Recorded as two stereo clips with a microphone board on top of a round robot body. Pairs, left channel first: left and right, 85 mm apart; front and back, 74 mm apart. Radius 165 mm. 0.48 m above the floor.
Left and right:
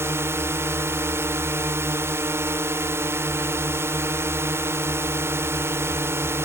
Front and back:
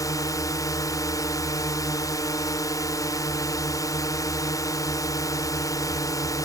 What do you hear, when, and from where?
0.0 s a drone: 30° right